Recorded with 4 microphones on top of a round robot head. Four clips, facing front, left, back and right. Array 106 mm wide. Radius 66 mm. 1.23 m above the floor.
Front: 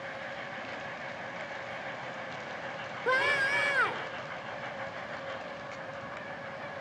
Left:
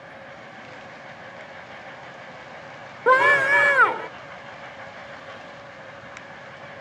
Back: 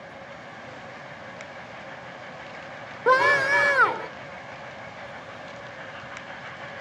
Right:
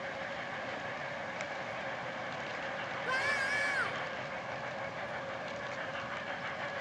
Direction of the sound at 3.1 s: 120° left.